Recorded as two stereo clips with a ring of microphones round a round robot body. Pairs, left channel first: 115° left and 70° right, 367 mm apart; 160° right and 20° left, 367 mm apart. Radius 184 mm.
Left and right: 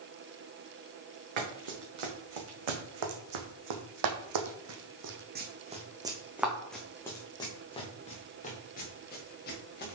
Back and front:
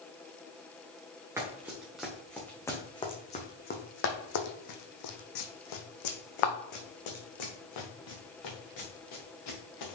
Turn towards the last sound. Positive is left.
turn(degrees=175)